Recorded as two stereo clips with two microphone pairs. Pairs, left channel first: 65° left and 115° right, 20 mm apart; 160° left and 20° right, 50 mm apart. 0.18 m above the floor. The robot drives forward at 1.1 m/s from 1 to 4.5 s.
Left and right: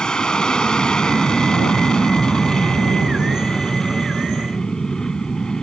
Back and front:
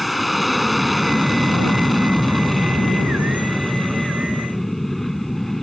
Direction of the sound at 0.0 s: 65° left.